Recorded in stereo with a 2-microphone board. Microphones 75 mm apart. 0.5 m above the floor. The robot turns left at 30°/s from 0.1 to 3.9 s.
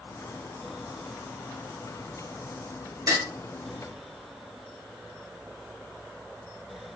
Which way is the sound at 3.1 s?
55° right (ahead or behind).